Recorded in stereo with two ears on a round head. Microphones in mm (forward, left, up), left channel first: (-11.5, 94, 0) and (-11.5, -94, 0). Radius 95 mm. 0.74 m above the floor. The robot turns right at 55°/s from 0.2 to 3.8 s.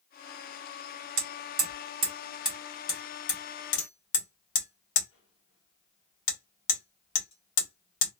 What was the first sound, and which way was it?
Hammering, 65° right (ahead or behind).